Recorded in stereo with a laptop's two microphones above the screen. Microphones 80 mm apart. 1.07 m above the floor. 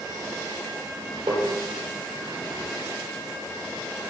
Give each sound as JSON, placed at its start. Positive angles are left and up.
{"t": 1.3, "sound": "tapping", "side_deg": -80, "distance_m": 4.0}